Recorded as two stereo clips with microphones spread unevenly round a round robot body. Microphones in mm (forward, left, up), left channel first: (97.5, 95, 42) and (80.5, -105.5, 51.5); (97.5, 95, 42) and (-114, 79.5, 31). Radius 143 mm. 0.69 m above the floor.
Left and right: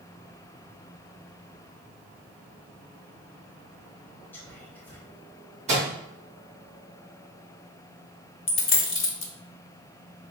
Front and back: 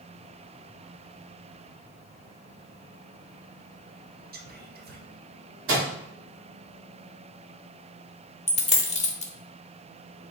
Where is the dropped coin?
65° left, 0.9 m.